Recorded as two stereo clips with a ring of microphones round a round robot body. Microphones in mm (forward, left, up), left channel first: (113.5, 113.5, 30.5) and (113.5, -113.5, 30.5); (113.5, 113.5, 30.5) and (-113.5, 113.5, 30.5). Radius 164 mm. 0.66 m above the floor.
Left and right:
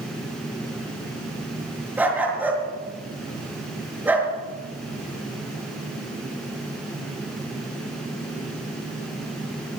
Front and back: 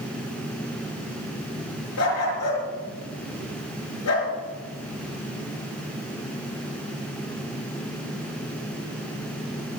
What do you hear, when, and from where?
2.0 s a dog barking: 10° right, 4.5 m